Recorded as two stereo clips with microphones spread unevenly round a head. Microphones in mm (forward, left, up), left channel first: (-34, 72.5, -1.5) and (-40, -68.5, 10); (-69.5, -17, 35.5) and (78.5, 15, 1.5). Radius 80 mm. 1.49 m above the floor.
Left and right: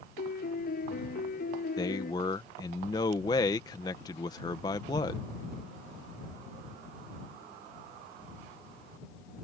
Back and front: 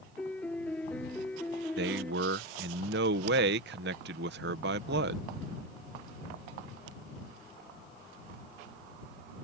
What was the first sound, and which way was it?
A piano, 110° left.